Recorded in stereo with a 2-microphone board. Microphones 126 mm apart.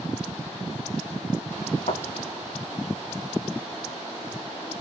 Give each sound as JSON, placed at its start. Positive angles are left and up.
{"t": 1.9, "sound": "a thud", "side_deg": 85, "distance_m": 3.0}